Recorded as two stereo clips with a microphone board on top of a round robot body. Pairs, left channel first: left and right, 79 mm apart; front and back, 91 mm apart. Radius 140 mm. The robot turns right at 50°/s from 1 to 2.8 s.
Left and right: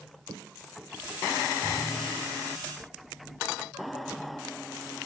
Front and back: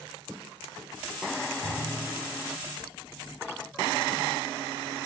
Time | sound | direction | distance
1.6 | a thud | 10° right | 4.5 m